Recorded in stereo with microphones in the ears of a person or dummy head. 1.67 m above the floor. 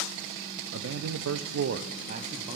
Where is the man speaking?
65° right (ahead or behind), 0.8 m; by 2.6 s 30° right (ahead or behind), 1.0 m.